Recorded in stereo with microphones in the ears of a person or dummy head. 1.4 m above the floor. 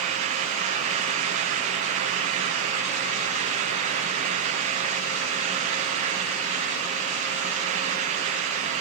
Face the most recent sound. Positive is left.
No sound to turn to.